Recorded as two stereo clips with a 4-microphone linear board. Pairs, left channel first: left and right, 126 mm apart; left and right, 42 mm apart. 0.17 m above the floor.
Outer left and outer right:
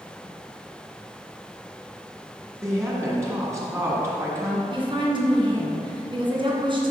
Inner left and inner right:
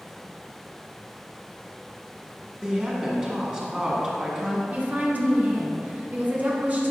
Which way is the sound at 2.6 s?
20° right (ahead or behind).